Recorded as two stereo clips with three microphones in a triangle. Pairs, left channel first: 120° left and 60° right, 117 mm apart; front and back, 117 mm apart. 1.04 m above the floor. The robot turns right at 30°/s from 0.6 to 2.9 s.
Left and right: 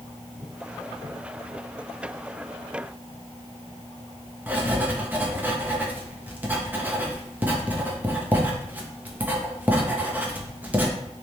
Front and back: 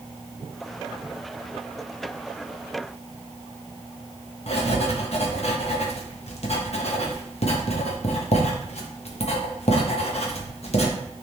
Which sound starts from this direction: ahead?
Writing, at 4.5 s.